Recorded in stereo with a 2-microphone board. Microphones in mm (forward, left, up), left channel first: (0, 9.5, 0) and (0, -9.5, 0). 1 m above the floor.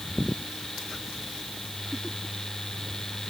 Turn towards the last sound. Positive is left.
No sound to turn to.